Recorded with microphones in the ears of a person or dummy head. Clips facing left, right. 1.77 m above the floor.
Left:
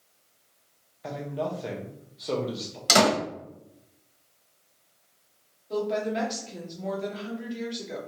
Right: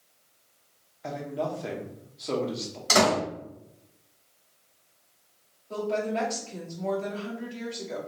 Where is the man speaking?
Centre (ahead or behind), 0.8 m.